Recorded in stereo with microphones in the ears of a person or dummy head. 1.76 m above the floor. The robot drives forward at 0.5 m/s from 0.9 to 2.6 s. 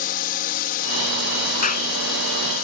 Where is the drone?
50° left (ahead or behind).